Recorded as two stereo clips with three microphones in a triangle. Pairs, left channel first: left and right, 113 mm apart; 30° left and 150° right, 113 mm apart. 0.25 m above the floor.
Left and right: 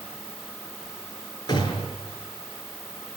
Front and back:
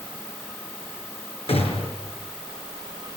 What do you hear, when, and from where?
1.5 s a gunshot: 45° left, 5 m